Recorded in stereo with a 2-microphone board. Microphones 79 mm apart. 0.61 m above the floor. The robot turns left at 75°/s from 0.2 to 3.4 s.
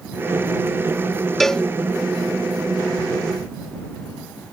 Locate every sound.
1.4 s a cowbell: centre (ahead or behind); by 1.6 s 10° left (ahead or behind)